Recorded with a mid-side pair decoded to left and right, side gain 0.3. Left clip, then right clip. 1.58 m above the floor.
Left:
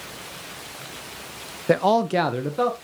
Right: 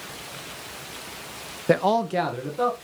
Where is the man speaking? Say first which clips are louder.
Left 2 dB; 10° right, 0.5 m; by 2.7 s 75° left, 1.6 m.